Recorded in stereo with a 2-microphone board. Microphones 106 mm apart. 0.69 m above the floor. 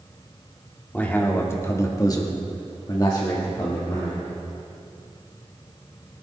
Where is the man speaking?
15° left (ahead or behind), 2 m; by 4.3 s 25° left (ahead or behind), 2.5 m.